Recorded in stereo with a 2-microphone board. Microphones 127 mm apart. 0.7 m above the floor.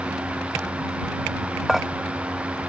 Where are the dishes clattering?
Centre (ahead or behind).